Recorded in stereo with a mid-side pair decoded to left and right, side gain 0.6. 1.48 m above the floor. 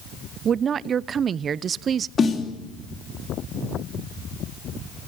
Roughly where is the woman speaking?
Ahead right.